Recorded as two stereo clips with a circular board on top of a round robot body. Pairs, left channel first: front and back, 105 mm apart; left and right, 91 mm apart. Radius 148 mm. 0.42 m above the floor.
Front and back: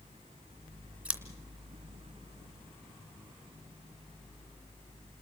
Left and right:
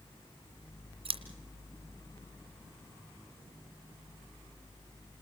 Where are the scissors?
100° right, 2.5 m.